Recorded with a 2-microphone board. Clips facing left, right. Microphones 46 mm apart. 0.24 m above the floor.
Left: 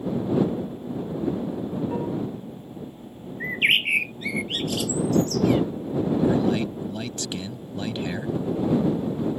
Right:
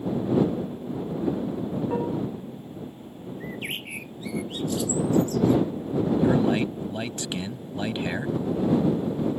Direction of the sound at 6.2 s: 20° right (ahead or behind).